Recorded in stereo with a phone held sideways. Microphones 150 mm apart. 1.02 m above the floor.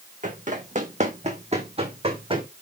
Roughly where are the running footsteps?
Right.